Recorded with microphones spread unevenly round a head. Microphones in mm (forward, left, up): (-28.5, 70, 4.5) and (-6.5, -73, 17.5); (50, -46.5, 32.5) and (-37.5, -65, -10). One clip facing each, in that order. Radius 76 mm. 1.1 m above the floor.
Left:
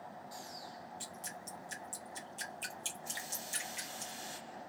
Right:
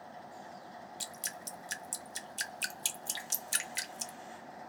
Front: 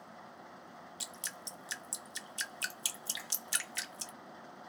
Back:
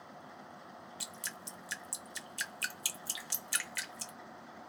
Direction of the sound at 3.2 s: 35° left.